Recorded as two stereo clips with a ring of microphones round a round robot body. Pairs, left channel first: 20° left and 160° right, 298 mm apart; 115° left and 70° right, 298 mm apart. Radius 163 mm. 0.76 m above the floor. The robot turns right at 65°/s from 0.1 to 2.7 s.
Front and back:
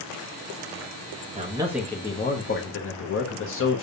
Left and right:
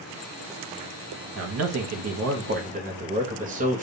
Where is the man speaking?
100° right, 0.9 m; by 3.8 s 10° right, 0.9 m.